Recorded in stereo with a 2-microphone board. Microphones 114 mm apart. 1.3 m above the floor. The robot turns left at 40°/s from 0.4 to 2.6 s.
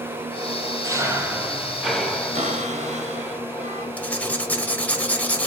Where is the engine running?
120° right, 1.6 m; by 5.5 s 150° left, 1.6 m.